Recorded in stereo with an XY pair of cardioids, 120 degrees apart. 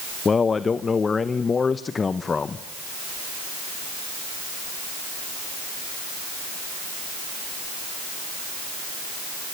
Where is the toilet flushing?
I don't hear a toilet flushing.